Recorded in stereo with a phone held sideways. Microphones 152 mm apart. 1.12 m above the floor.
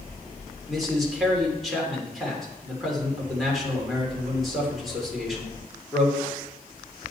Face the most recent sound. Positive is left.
turn(degrees=0)  # may be behind; listen again after turning